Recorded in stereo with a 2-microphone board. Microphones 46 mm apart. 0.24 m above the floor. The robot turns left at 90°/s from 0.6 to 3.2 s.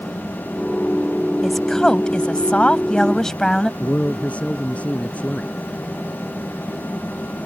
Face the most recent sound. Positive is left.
turn(degrees=30)  # may be behind; listen again after turning